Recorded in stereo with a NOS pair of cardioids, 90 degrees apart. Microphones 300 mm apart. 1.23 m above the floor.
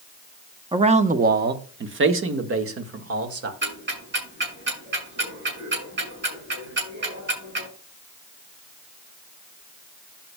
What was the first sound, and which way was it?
A man speaking, 15° right.